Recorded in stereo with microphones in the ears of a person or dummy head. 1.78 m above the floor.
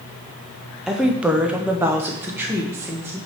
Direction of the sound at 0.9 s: Centre (ahead or behind).